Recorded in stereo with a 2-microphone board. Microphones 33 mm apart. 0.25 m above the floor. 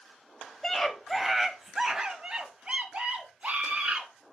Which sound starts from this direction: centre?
A scream, at 0.6 s.